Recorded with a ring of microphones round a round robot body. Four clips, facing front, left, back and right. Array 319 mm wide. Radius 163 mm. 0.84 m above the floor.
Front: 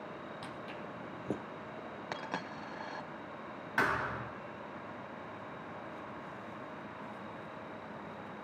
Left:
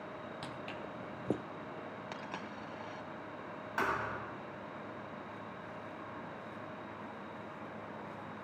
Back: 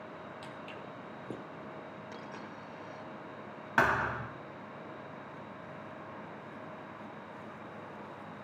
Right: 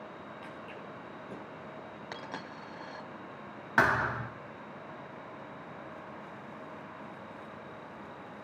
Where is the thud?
125° right, 1.9 m.